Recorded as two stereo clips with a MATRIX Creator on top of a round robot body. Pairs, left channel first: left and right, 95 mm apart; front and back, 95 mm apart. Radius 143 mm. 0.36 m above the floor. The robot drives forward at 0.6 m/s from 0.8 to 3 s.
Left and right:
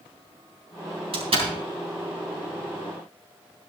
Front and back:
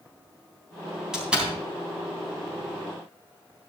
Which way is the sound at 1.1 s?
95° right.